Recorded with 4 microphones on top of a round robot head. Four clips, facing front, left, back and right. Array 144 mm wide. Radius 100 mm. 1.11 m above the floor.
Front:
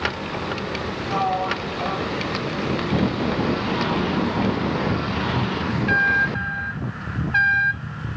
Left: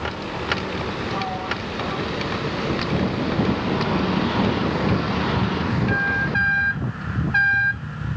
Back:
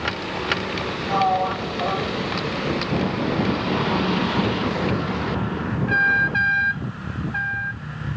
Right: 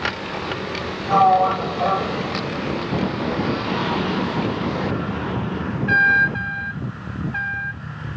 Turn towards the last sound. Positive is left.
turn(degrees=-100)